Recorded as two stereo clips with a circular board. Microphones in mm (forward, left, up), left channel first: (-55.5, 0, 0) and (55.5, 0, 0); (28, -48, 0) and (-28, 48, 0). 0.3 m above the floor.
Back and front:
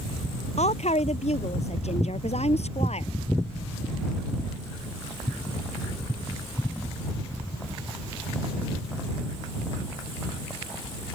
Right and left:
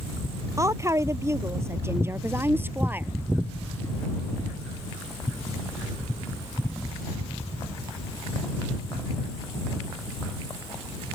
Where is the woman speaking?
175° right; by 3.1 s 165° right.